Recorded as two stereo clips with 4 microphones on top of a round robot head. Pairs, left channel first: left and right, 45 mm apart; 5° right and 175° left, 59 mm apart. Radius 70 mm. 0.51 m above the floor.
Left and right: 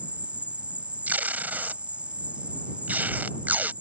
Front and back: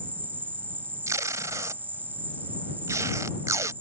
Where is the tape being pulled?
145° right.